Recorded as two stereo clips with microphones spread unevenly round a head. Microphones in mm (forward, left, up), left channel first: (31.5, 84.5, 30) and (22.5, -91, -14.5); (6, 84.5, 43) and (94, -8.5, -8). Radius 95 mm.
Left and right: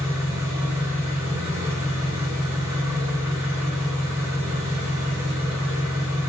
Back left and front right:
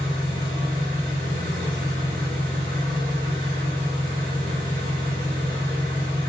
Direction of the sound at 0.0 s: 110° right.